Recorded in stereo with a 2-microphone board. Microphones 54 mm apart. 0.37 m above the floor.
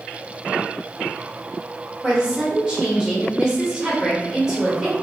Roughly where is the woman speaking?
Centre.